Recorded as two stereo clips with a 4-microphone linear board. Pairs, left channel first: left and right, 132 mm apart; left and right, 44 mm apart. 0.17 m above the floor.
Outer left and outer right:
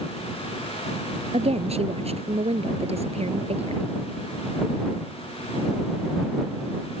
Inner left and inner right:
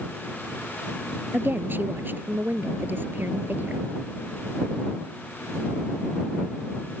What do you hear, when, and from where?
1.3 s a woman speaking: 50° right (ahead or behind)